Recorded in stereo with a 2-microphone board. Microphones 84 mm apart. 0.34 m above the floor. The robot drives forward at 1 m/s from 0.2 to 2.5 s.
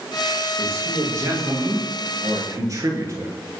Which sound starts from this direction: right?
A man speaking, at 0.6 s.